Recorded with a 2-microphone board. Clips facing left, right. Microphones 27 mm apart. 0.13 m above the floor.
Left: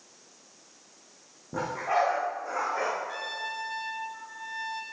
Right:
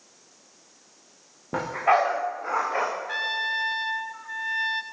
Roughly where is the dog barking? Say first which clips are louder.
Right 6 dB; right.